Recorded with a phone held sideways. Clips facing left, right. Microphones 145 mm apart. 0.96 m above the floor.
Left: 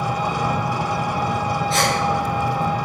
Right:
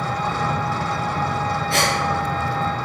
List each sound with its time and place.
0.0 s an engine running: 15° left (ahead or behind), 0.9 m
1.7 s a gasp: 55° right (ahead or behind), 7.5 m